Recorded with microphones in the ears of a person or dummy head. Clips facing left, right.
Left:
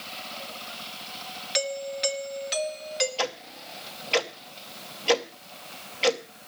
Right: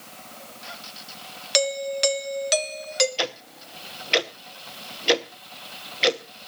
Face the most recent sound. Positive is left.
turn(degrees=-20)  # may be behind; listen again after turning